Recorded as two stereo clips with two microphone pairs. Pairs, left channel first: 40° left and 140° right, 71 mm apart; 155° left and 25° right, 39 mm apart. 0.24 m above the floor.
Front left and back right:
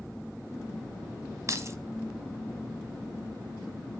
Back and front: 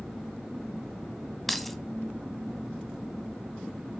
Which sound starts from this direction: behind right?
Keys jangling, at 1.5 s.